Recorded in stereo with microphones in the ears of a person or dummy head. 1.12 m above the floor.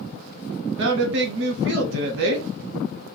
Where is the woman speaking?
60° right (ahead or behind), 0.9 m.